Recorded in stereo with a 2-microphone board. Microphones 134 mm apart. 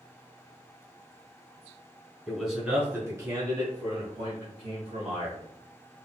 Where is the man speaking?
Centre (ahead or behind), 1.4 m; by 5.4 s 55° right (ahead or behind), 2.5 m.